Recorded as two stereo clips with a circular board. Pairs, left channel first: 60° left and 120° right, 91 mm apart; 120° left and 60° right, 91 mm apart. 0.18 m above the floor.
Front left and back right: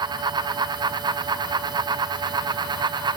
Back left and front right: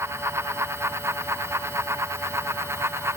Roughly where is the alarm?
No alarm in this recording.